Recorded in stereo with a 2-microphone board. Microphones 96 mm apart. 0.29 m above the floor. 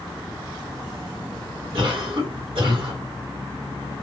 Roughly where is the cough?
Right.